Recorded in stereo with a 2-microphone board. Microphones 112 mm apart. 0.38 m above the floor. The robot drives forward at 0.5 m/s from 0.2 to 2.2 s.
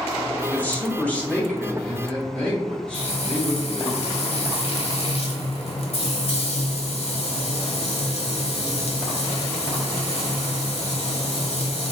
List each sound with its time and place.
0.5 s a man speaking: 15° left (ahead or behind), 0.8 m; by 3.9 s 10° left (ahead or behind), 1.4 m
2.9 s frying: 65° left (ahead or behind), 0.8 m